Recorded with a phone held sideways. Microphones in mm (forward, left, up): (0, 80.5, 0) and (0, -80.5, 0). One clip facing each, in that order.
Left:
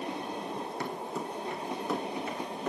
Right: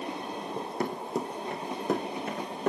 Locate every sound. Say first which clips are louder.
0.6 s running footsteps: right 3 dB; 30° right (ahead or behind), 1.9 m; by 2.7 s 45° right (ahead or behind), 3 m